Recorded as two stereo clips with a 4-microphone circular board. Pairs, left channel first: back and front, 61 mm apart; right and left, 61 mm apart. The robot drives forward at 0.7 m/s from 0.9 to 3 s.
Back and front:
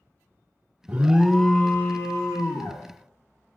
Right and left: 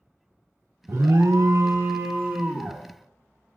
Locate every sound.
0.9 s an alarm: 60° left, 0.6 m; by 2.8 s 155° left, 1.2 m